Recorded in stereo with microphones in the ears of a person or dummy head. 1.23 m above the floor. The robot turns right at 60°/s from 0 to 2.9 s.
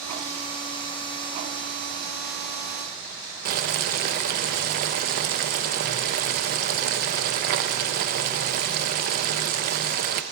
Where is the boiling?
45° right (ahead or behind), 0.6 m.